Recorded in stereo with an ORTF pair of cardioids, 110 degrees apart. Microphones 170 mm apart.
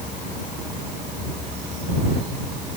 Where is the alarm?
I don't hear an alarm.